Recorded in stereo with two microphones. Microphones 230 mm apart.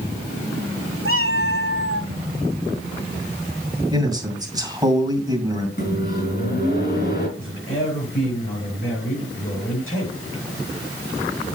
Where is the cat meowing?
70° right (ahead or behind), 1.0 m.